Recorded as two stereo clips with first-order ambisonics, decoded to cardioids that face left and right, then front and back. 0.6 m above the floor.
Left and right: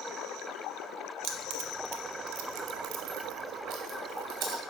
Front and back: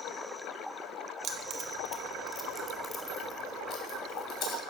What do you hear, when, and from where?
1.2 s keys jangling: 135° right, 1.5 m; by 4.6 s 50° right, 3.5 m